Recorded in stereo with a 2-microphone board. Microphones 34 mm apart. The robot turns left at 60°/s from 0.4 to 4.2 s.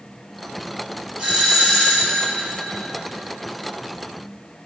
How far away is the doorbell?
About 4 m.